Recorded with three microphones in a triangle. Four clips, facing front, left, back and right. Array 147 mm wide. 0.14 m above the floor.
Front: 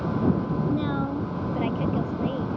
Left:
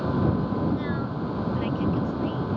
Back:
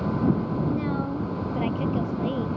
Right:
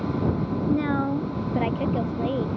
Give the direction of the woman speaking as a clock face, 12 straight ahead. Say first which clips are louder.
Right 5 dB, front 1 dB; 3 o'clock.